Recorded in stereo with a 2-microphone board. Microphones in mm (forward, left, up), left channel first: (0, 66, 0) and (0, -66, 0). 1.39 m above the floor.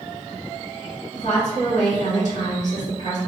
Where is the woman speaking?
60° left (ahead or behind), 1.8 m.